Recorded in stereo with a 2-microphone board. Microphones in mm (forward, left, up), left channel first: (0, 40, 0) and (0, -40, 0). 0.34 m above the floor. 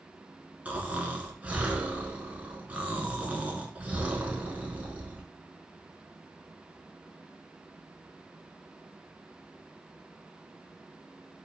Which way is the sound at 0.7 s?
20° right (ahead or behind).